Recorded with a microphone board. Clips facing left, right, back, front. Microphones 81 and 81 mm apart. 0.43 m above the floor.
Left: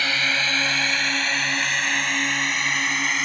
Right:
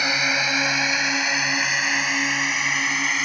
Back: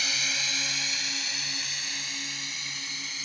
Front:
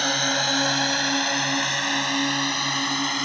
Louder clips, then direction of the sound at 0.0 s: Right 1 dB, front 10 dB; 20° right.